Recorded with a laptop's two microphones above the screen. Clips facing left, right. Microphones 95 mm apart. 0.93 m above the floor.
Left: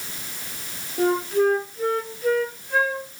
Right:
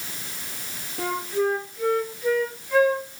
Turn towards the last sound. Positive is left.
turn(degrees=35)  # may be behind; listen again after turning